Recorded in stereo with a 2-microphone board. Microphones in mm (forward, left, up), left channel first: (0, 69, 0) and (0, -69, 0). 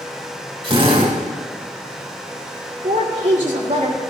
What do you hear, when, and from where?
0.6 s a drill: 40° right (ahead or behind), 3 m
2.8 s a woman speaking: 65° right (ahead or behind), 2 m